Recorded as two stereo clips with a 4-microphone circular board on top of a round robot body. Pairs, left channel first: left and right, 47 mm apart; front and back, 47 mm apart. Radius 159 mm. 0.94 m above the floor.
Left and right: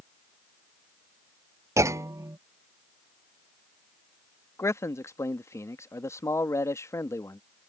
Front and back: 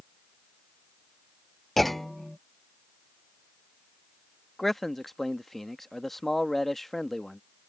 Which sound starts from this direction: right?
A clunk, at 1.8 s.